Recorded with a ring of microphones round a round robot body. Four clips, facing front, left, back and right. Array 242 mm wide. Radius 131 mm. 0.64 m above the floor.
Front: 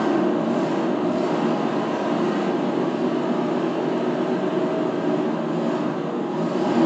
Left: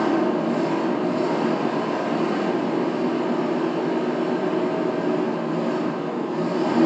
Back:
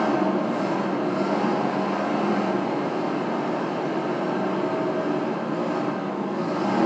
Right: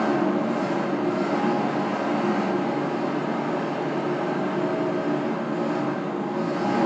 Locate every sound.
0.0 s an engine running: 35° left, 0.9 m